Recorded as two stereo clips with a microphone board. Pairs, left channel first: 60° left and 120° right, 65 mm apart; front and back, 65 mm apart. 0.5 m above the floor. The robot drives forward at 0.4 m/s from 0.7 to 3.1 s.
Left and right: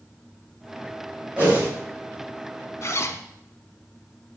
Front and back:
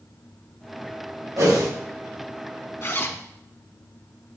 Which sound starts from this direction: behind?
A whoosh, at 1.4 s.